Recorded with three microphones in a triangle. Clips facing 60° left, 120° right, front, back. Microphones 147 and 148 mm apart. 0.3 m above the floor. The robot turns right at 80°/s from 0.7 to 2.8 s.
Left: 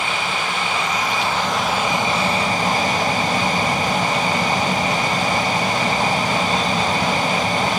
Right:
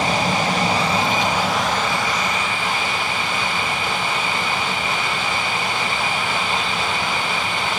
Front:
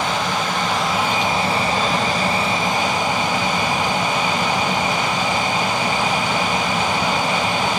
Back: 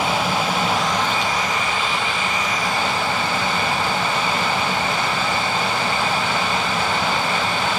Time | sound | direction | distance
0.0 | an aircraft | 100° right | ?